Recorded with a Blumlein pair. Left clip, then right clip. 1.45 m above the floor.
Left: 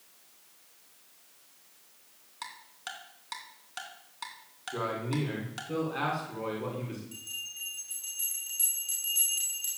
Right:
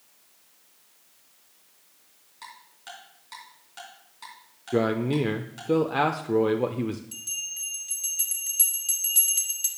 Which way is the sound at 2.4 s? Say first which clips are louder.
Left 2 dB; 20° left.